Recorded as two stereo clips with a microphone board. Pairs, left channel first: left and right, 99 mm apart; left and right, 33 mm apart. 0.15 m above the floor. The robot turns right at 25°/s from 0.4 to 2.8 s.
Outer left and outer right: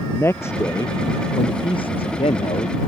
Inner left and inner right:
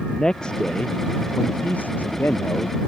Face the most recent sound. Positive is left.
turn(degrees=85)